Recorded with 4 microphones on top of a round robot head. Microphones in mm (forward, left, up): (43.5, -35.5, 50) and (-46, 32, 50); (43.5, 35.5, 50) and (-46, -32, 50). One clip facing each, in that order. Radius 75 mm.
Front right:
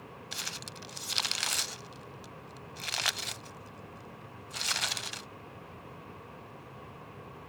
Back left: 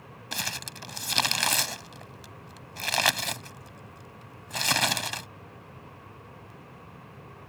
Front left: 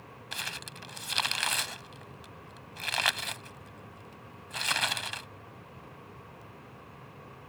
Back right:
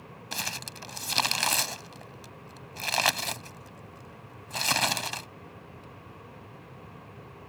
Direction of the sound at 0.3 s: 170° left.